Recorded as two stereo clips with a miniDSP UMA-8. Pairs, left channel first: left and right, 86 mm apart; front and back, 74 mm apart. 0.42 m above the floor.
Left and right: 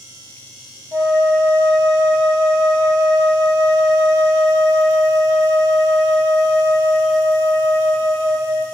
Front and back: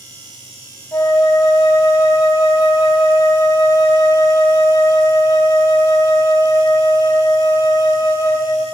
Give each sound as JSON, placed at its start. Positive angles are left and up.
{"t": 0.9, "sound": "a flute", "azimuth_deg": -40, "distance_m": 3.0}